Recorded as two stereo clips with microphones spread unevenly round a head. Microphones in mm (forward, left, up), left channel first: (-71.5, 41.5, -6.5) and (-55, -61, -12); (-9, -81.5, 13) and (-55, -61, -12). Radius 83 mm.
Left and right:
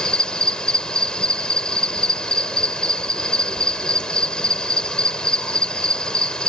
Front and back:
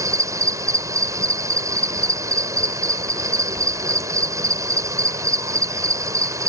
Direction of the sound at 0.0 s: Straight behind.